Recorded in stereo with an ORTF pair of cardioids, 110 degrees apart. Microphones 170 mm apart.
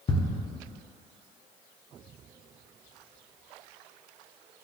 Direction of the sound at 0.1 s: 30° left.